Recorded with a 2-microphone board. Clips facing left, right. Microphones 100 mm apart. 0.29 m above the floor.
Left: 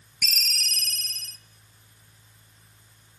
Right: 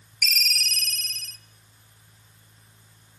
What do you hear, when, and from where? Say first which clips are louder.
0.2 s a ringtone: right 4 dB; 30° left (ahead or behind), 1.0 m